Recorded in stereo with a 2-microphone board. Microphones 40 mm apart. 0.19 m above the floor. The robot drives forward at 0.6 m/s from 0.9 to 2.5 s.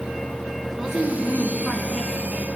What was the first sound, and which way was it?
A woman speaking, 10° right (ahead or behind).